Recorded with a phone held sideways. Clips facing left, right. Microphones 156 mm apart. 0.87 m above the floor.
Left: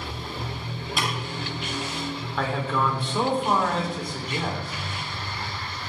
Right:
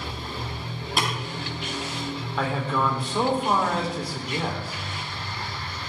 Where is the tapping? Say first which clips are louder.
Right 2 dB; 55° right (ahead or behind), 5 m.